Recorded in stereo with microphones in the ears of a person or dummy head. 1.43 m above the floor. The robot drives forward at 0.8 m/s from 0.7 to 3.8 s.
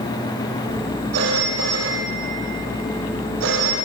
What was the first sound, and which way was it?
A phone ringing, 80° right.